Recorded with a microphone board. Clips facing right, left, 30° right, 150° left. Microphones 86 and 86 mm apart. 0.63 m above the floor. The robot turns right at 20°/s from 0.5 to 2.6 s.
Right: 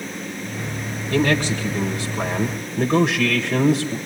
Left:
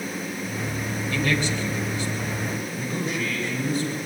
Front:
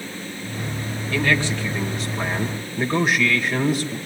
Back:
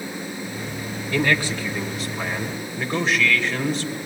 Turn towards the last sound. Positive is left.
turn(degrees=-110)